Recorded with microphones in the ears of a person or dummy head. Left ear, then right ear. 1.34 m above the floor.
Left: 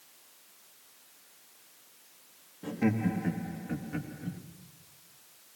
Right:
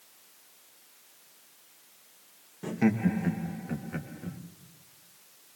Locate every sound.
2.6 s laughter: 75° right (ahead or behind), 1.9 m; by 4.4 s 80° right, 2.5 m